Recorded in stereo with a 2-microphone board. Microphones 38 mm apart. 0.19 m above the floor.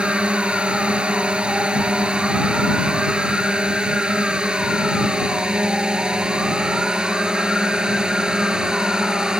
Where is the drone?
25° right (ahead or behind); by 9.4 s 20° right (ahead or behind).